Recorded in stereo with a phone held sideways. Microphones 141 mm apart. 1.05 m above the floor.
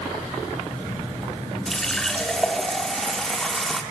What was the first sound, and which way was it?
A running tap, 5° left (ahead or behind).